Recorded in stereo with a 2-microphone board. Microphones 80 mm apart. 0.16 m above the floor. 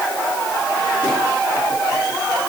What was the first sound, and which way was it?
Only background noise.